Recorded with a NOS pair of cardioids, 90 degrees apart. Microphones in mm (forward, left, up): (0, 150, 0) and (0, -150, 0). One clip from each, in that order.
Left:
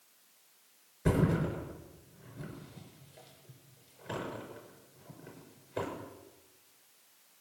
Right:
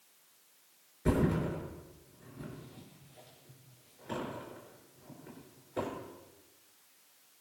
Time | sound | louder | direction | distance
1.1 | a thud | even | 20° left | 5.5 m